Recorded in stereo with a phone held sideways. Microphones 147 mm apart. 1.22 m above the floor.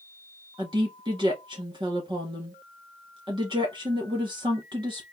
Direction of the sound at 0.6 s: 30° right (ahead or behind).